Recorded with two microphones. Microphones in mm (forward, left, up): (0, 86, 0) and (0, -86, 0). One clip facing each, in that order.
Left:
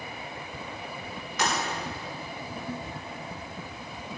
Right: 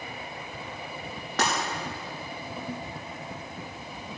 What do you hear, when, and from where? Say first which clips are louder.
1.4 s breaking glass: right 2 dB; 65° right (ahead or behind), 5 m